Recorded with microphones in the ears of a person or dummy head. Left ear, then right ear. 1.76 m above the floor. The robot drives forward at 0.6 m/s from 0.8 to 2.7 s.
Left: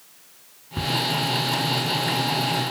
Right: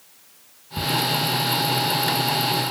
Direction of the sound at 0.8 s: Centre (ahead or behind).